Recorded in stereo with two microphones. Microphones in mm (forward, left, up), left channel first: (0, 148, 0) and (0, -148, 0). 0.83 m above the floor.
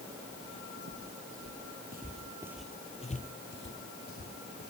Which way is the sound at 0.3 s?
55° right (ahead or behind).